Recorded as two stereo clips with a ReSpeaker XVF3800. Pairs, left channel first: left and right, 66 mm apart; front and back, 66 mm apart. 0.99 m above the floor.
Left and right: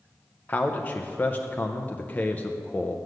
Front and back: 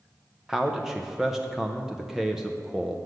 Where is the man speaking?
105° left, 0.6 m.